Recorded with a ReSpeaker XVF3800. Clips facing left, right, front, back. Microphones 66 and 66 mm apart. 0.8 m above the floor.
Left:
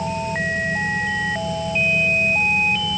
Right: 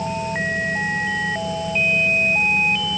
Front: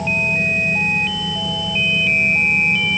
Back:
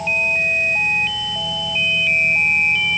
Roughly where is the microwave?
I don't hear a microwave.